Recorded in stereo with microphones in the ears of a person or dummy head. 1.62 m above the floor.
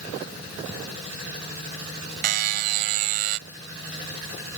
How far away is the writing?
No writing in this recording.